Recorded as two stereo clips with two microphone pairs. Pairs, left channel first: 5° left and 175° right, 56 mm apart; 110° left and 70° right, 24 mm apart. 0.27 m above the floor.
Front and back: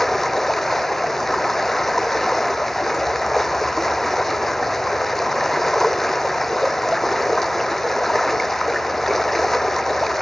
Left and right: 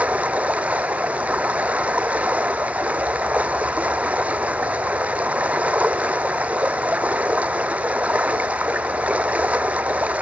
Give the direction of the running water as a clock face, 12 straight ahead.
3 o'clock.